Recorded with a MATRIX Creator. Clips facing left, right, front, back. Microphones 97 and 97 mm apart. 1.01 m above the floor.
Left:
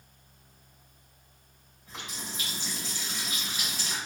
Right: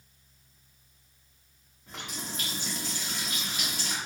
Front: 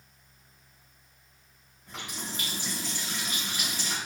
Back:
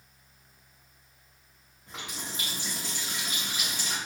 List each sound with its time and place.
1.9 s a running tap: 110° right, 1.6 m